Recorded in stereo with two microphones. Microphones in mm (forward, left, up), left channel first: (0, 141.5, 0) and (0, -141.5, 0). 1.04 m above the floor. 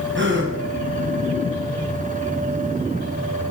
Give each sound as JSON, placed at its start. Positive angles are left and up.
{"t": 0.1, "sound": "a gasp", "side_deg": -35, "distance_m": 1.1}